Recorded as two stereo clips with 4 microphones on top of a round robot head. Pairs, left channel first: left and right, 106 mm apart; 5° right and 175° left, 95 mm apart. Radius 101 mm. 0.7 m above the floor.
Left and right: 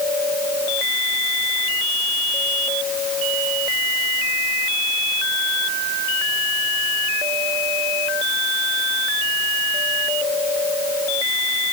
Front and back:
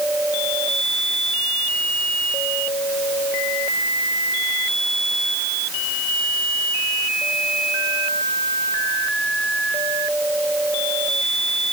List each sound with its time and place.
Only background noise.